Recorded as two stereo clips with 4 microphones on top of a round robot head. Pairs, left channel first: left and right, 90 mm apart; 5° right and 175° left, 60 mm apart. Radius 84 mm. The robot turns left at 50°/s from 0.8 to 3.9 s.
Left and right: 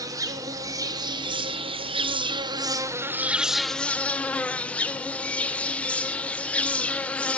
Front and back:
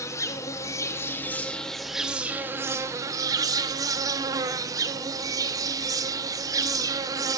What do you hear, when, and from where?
0.0 s an insect: 40° right, 1.4 m; by 7.4 s 165° left, 1.4 m